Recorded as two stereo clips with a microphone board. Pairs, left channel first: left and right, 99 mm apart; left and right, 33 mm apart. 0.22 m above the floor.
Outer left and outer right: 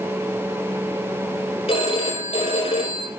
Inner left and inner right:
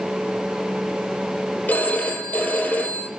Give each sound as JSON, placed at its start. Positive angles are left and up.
{"t": 1.7, "sound": "a phone ringing", "side_deg": 75, "distance_m": 5.0}